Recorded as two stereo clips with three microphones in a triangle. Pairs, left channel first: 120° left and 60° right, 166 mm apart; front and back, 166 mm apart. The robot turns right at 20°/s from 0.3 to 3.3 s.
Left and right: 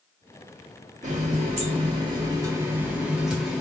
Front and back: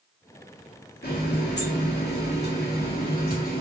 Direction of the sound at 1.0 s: 15° right.